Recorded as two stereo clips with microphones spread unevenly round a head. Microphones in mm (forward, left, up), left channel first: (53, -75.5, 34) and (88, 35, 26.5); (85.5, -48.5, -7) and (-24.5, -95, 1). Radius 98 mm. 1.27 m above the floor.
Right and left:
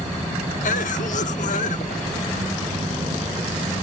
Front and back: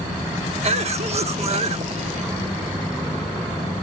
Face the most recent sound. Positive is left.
turn(degrees=-125)